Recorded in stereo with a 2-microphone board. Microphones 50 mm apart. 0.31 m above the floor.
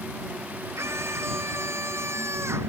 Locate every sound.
0.8 s a scream: 65° right (ahead or behind)